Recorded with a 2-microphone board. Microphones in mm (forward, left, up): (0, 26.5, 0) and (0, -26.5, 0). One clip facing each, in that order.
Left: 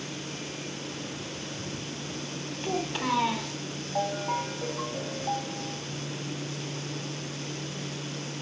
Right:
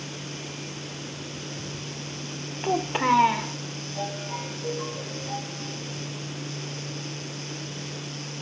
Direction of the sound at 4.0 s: 75° left (ahead or behind).